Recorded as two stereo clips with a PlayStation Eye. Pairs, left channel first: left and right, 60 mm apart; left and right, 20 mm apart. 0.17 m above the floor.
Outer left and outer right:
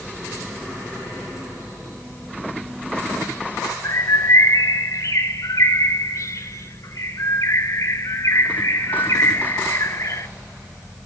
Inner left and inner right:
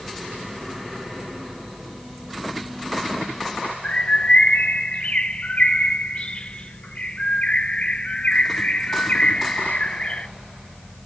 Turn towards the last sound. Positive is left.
turn(degrees=60)  # may be behind; listen again after turning